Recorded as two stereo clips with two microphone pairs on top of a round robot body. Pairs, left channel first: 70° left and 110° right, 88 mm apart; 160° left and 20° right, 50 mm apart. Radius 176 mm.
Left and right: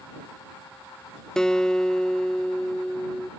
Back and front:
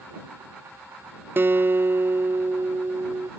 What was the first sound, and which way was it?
A guitar, 15° right.